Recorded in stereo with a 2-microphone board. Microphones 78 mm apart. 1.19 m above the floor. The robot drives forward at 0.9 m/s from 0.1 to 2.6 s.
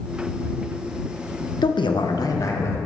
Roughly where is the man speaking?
Left.